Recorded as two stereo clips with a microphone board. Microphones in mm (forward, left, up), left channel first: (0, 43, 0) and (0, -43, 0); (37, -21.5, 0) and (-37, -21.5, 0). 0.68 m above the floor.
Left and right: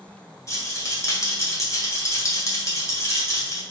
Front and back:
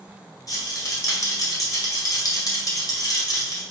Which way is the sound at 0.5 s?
35° left.